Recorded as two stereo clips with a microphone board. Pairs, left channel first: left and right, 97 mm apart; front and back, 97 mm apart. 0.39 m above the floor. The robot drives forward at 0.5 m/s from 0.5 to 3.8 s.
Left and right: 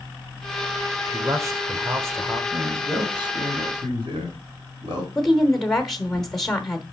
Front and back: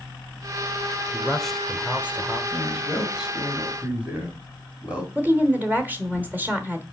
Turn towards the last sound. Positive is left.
turn(degrees=170)